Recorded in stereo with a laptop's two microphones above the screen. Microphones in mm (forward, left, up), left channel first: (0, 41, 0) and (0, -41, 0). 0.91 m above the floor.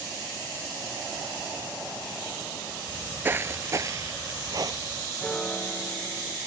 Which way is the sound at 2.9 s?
15° right (ahead or behind).